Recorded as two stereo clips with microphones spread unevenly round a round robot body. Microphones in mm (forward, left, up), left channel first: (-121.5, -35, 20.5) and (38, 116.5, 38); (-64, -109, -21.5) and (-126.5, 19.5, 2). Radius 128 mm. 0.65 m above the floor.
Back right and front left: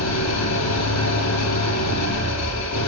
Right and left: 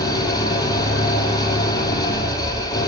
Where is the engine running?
130° right, 7.5 m.